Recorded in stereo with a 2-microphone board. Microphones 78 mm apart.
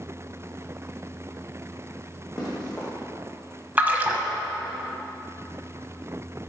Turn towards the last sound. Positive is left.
turn(degrees=-20)  # may be behind; listen again after turning